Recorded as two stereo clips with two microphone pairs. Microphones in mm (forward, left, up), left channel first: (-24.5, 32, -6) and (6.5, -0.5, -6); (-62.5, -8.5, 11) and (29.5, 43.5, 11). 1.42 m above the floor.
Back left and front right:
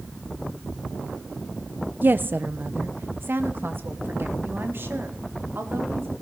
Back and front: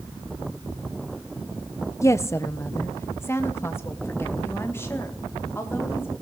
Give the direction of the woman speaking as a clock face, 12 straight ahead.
3 o'clock.